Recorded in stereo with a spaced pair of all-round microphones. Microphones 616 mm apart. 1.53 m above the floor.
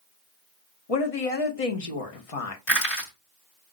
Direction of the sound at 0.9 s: 65° left (ahead or behind).